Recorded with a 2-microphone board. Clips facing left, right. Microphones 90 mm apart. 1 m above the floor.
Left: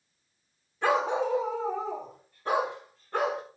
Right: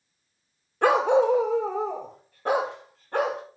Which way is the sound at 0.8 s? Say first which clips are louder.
Right 7 dB; 65° right (ahead or behind).